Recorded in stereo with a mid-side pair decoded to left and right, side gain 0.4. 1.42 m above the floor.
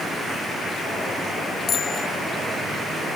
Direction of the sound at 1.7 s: 60° left.